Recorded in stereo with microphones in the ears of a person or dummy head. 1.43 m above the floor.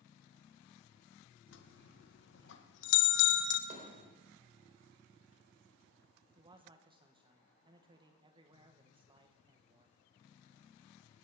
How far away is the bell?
About 1.3 m.